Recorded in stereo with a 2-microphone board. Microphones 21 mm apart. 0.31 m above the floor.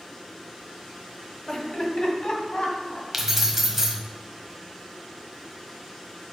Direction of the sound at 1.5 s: 35° left (ahead or behind).